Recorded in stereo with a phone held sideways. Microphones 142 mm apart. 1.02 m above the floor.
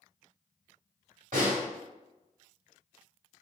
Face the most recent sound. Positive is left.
turn(degrees=-70)  # may be behind; listen again after turning